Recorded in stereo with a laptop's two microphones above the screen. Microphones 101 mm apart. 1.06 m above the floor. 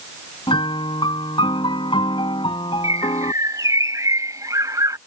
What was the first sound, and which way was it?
A piano, 55° left (ahead or behind).